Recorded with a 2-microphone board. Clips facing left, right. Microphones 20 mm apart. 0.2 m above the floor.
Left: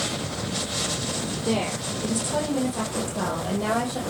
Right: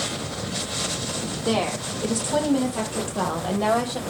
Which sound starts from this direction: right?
A woman speaking, at 1.4 s.